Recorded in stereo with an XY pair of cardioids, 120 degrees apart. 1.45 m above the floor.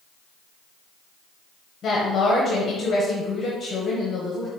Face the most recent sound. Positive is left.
turn(degrees=40)